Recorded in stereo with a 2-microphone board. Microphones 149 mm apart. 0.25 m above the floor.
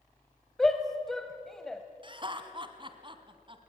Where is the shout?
5° left (ahead or behind), 1.1 m.